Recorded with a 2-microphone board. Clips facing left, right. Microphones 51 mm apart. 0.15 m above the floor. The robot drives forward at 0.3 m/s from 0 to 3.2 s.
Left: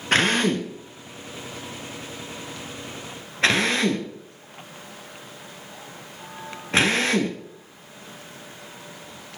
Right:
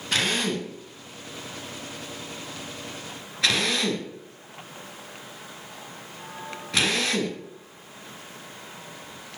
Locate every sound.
0.1 s a drill: 45° left (ahead or behind), 1.5 m; by 7.4 s 35° left (ahead or behind), 1.9 m